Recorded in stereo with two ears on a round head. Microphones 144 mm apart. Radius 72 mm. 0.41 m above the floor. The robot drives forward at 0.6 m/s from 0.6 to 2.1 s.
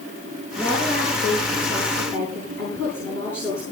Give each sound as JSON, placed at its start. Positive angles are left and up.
{"t": 0.6, "sound": "a woman speaking", "side_deg": 15, "distance_m": 7.0}